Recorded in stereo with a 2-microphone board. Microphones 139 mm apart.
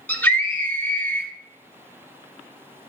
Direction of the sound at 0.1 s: 10° left (ahead or behind).